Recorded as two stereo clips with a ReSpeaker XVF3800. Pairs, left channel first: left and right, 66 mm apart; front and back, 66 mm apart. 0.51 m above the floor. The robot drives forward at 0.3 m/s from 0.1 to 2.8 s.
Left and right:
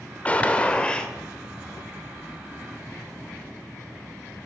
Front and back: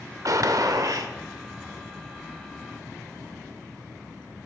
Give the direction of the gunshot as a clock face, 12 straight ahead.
7 o'clock.